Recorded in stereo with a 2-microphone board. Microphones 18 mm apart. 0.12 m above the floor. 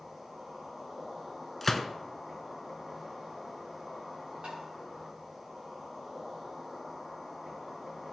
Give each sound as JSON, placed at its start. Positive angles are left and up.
{"t": 0.0, "sound": "an insect", "side_deg": -15, "distance_m": 4.0}
{"t": 1.6, "sound": "a gunshot", "side_deg": 10, "distance_m": 0.7}
{"t": 4.4, "sound": "tapping", "side_deg": -85, "distance_m": 4.0}